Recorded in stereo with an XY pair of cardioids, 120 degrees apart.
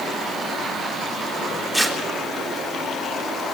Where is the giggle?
I don't hear a giggle.